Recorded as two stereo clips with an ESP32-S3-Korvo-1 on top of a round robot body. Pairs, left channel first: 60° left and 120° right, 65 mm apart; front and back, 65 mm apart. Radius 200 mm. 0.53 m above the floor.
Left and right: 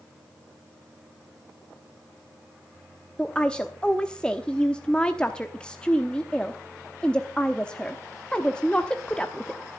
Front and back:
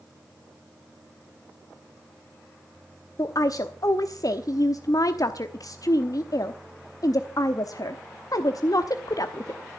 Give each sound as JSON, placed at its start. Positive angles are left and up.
{"t": 3.2, "sound": "a woman speaking", "azimuth_deg": -15, "distance_m": 1.2}